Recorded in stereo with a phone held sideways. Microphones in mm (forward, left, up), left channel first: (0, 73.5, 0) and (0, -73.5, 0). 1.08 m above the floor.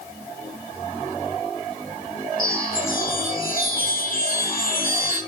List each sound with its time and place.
2.4 s a chime: 70° left (ahead or behind), 7 m